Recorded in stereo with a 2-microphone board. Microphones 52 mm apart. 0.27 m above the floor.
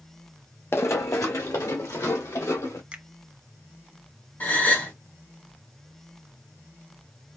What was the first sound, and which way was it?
Running footsteps, 50° left (ahead or behind).